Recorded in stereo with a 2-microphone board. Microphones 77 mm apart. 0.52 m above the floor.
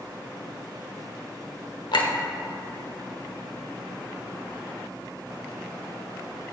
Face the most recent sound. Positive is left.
turn(degrees=75)  # may be behind; listen again after turning